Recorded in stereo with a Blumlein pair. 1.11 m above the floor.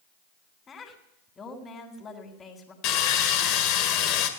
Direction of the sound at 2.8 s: 40° left.